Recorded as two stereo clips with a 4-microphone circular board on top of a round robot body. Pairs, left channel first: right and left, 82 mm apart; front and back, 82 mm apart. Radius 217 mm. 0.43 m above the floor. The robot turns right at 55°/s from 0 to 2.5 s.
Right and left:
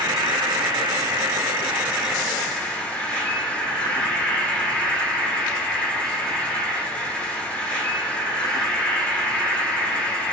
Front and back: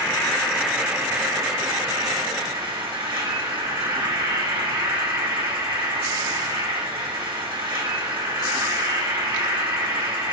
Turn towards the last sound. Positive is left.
turn(degrees=-170)